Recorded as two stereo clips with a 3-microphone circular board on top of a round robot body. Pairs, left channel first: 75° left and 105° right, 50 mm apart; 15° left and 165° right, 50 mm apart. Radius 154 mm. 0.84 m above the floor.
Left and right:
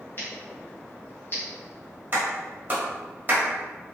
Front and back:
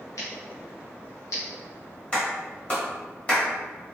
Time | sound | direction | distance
0.2 | scissors | 30° left | 0.8 m
2.1 | a clap | 50° right | 1.4 m